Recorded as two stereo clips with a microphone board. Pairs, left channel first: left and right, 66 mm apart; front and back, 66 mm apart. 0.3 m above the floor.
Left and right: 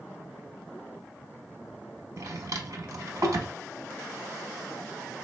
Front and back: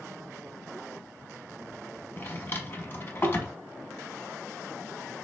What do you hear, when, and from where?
2.2 s a drawer: 55° right, 0.9 m